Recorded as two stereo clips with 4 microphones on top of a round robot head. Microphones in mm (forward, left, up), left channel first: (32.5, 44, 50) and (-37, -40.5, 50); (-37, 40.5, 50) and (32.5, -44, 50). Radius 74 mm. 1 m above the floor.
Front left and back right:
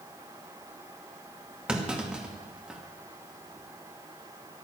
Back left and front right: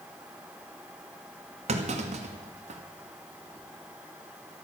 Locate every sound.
1.7 s a clunk: 50° right, 2 m